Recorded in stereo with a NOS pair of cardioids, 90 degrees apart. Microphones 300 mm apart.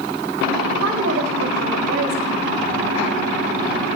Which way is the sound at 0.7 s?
65° right.